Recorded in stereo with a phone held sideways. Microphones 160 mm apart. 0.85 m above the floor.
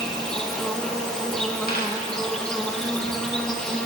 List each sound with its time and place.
0.0 s an insect: 5° left (ahead or behind), 1.6 m
1.7 s a dropped coin: 70° left (ahead or behind), 3.5 m